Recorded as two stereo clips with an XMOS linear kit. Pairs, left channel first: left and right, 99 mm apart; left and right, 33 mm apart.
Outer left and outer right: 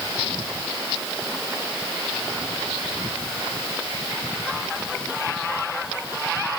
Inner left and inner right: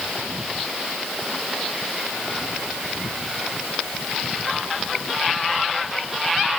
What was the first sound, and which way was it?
Only background noise.